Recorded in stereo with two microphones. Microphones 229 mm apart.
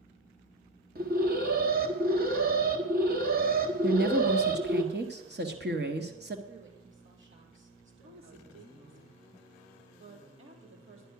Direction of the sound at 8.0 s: 65° right (ahead or behind).